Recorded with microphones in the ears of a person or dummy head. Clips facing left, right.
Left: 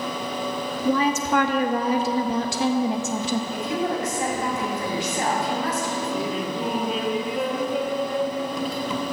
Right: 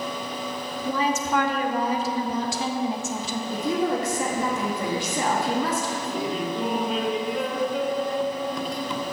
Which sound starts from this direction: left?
A woman speaking, at 0.8 s.